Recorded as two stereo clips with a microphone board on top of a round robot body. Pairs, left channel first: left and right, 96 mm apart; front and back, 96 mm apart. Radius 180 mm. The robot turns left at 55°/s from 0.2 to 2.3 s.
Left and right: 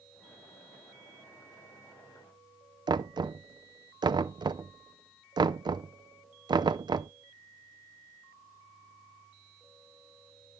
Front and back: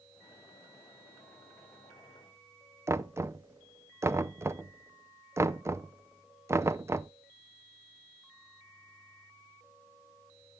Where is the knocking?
120° right, 0.6 m.